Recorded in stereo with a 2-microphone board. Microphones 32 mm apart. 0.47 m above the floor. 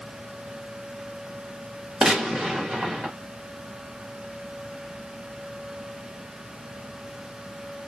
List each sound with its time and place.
2.0 s a gunshot: 15° right (ahead or behind), 1.2 m